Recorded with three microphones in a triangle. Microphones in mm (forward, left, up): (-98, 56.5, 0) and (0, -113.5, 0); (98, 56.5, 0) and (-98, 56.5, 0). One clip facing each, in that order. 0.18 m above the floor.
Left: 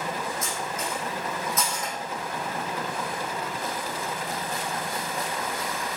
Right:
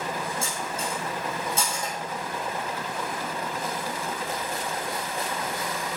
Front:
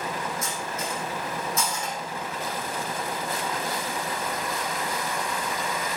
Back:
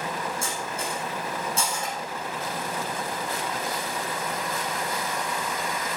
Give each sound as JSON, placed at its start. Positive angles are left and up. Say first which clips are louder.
{"t": 0.4, "sound": "cutlery clinking", "louder": "even, even", "azimuth_deg": -120, "distance_m": 4.0}